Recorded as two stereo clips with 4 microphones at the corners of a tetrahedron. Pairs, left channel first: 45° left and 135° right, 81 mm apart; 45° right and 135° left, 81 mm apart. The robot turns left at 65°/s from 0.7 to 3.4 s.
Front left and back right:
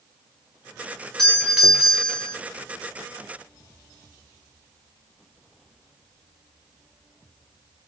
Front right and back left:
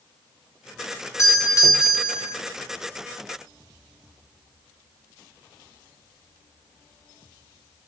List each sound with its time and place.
1.2 s a doorbell: 35° right, 1.5 m; by 2.4 s 110° right, 1.5 m